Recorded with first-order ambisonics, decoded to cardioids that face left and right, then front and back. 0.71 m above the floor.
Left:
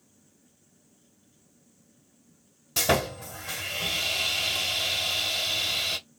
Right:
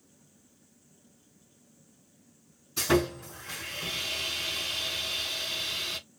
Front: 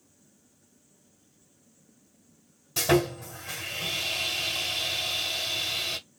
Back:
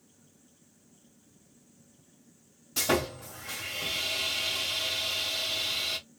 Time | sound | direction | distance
2.8 | sawing | 80° left | 1.8 m